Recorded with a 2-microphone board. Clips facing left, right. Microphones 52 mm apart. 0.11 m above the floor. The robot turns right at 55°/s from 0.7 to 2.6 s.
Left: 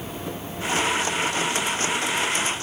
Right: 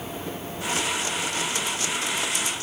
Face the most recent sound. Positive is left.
No sound to turn to.